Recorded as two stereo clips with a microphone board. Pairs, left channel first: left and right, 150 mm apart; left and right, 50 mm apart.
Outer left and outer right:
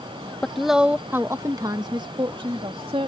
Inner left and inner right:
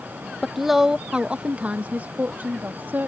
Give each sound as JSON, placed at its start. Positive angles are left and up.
{"t": 0.4, "sound": "a woman speaking", "side_deg": 5}